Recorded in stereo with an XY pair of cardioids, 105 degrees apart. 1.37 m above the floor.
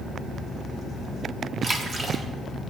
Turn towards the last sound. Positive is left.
turn(degrees=-40)